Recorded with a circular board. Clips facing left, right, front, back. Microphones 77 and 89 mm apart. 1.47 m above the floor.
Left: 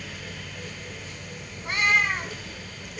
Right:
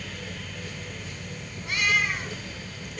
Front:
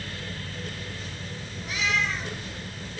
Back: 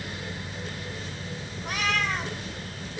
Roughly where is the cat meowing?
Behind left.